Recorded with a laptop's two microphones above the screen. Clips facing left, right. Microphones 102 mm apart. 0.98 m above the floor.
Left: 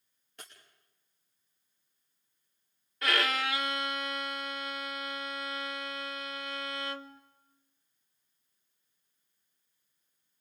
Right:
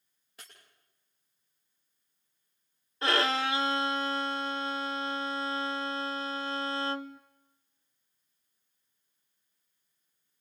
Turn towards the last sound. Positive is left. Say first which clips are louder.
# right 3 dB
turn(degrees=-25)  # may be behind; listen again after turning